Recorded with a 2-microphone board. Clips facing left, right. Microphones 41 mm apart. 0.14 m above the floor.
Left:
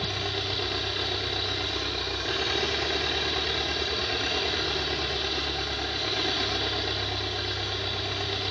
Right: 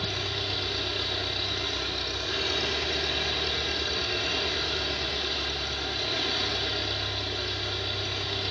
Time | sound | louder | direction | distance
0.0 | an engine running | left 1 dB | 25° left (ahead or behind) | 5 m